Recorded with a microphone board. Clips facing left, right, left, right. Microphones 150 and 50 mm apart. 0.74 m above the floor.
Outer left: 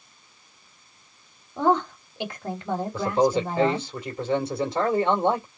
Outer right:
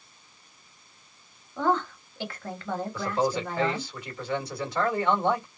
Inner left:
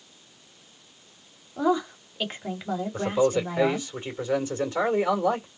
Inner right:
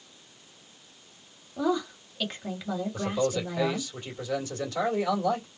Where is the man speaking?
25° left (ahead or behind), 2 m.